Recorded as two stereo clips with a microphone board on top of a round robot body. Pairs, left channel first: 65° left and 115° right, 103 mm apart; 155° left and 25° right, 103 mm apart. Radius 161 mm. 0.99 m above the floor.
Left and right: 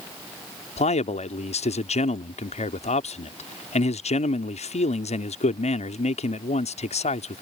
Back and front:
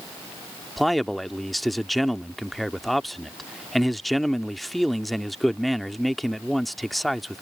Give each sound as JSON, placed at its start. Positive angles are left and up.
{"t": 0.8, "sound": "a man speaking", "azimuth_deg": 70}